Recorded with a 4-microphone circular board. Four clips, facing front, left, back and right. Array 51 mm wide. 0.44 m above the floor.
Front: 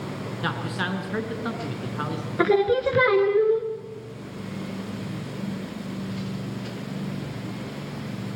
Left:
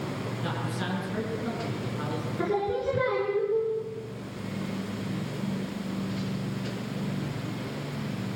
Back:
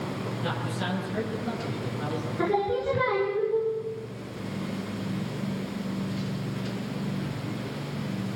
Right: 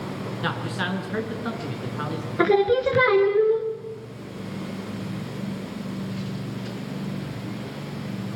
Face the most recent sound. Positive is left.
turn(degrees=-50)